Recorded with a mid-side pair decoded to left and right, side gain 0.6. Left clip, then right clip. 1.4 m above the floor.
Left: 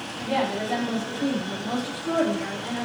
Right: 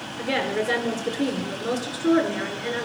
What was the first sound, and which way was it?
A woman speaking, 70° right.